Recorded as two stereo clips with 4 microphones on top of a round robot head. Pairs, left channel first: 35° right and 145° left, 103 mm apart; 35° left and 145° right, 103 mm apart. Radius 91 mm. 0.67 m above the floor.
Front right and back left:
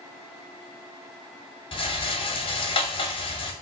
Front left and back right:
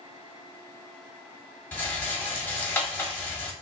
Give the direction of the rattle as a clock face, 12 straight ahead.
1 o'clock.